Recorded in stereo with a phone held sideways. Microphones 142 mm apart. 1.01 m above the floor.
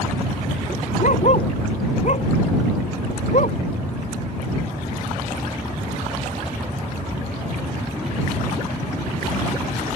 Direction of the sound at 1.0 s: 55° left (ahead or behind).